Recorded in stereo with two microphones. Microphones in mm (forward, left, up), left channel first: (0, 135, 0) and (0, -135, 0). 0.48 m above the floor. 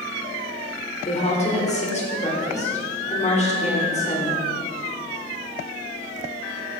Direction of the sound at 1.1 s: 25° left (ahead or behind).